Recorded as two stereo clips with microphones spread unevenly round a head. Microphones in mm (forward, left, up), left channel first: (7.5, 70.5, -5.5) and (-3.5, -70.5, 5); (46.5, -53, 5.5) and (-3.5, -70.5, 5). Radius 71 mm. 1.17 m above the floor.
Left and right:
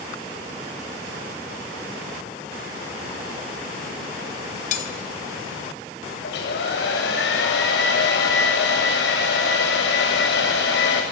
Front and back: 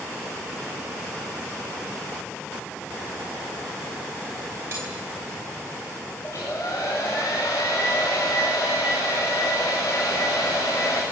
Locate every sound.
4.7 s cutlery clinking: 125° left, 3 m
6.2 s a hair dryer: 90° left, 7.5 m